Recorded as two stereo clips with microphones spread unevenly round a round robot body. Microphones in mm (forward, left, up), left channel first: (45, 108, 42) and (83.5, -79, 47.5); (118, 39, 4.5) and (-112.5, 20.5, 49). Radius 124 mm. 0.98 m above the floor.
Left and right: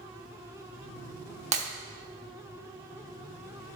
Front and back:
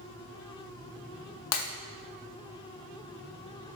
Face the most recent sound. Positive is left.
turn(degrees=-25)